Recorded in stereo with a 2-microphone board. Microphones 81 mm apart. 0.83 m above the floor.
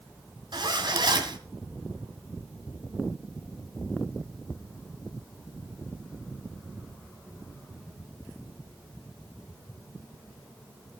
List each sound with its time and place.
0.5 s a zipper: 65° right (ahead or behind), 1.9 m